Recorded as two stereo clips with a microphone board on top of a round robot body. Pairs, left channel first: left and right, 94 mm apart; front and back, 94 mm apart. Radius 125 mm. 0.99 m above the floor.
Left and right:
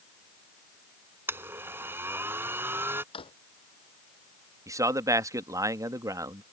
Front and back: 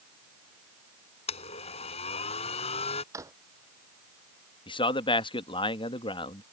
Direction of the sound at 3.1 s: 120° left.